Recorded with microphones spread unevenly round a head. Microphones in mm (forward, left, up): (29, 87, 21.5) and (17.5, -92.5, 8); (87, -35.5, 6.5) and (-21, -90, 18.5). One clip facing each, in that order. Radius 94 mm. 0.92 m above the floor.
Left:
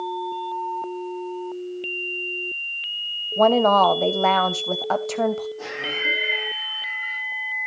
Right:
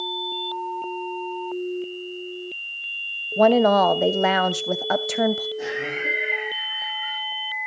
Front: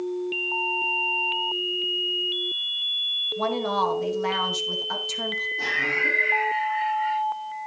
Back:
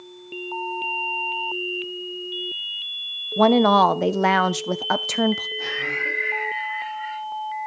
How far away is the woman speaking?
About 0.9 m.